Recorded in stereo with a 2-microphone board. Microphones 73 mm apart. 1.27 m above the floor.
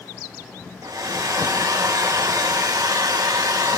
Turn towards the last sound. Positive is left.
turn(degrees=-65)  # may be behind; listen again after turning